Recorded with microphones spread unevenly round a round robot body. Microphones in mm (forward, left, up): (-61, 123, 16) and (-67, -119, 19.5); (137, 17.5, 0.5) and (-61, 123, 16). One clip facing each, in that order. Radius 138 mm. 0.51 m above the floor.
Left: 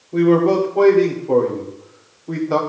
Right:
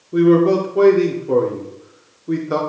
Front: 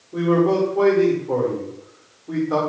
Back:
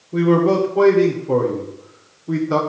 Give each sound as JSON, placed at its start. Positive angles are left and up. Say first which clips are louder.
{"t": 0.1, "sound": "a man speaking", "louder": "right 2 dB, back 2 dB", "azimuth_deg": -155, "distance_m": 1.6}